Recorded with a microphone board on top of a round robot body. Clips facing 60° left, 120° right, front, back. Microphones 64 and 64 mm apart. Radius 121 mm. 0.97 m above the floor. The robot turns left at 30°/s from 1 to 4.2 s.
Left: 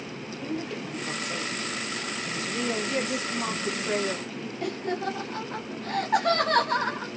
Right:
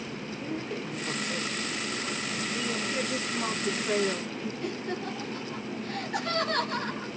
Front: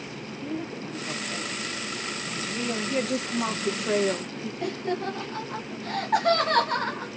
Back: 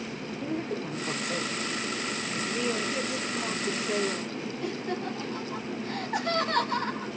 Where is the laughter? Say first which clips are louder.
Left 7 dB, front 5 dB; 30° left, 1.8 m.